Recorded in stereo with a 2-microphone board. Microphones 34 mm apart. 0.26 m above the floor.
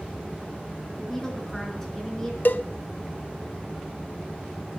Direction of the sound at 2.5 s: 60° left (ahead or behind).